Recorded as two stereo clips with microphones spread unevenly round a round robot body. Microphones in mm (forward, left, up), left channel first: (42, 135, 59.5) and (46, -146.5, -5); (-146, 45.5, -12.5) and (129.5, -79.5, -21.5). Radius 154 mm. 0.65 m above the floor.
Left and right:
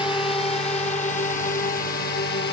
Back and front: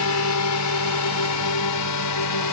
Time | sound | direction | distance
0.0 | a drone | 170° left | ?